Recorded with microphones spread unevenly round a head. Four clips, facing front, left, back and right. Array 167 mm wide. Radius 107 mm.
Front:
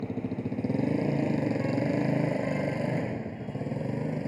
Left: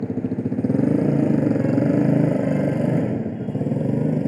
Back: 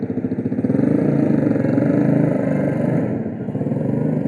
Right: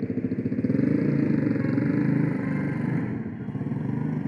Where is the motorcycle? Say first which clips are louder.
Left 3 dB, back 11 dB; 165° right; by 4.3 s 175° left.